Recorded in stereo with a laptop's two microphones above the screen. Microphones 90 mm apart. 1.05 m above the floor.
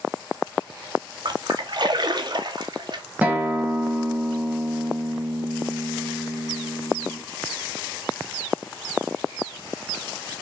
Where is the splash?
50° right (ahead or behind), 0.9 m.